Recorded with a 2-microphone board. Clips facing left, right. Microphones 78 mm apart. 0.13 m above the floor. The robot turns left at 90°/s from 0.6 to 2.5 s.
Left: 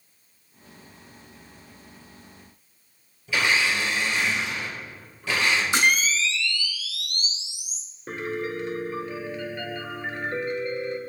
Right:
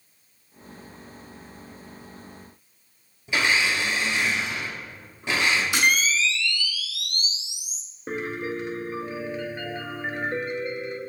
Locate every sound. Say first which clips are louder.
3.3 s a blender: even; 20° right (ahead or behind), 2.5 m
5.7 s a camera shutter: even; 25° left (ahead or behind), 1.4 m
8.1 s a piano: even; 20° right (ahead or behind), 1.0 m